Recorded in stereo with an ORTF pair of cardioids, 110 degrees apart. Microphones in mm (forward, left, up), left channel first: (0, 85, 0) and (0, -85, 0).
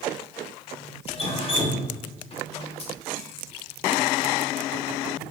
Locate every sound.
1.1 s dripping: 35° left, 0.8 m